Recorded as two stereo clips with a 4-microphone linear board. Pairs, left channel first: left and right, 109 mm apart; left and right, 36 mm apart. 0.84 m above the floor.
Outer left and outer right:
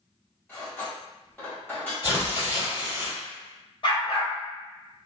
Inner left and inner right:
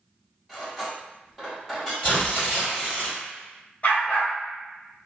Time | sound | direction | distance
0.5 | cutlery clinking | 10° left (ahead or behind) | 1.4 m
2.0 | tearing paper | 30° left (ahead or behind) | 1.8 m
3.8 | a dog barking | 50° left (ahead or behind) | 0.8 m